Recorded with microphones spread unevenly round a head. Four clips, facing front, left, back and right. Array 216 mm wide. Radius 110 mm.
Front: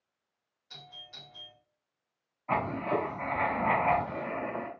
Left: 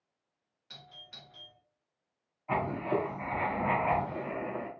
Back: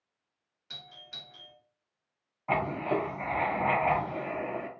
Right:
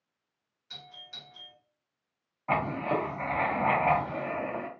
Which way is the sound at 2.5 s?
120° right.